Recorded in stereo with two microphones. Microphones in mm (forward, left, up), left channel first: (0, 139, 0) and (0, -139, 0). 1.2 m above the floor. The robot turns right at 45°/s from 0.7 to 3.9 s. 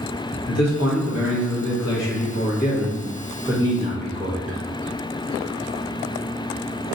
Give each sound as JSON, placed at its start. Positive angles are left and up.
{"t": 0.5, "sound": "a man speaking", "azimuth_deg": 60, "distance_m": 1.1}